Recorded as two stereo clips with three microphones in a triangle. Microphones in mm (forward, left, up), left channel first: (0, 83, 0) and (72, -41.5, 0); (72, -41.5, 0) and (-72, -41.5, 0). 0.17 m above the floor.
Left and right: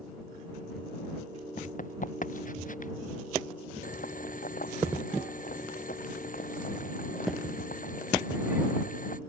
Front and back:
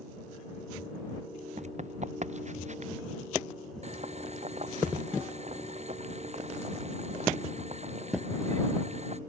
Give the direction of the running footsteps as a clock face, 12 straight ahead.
7 o'clock.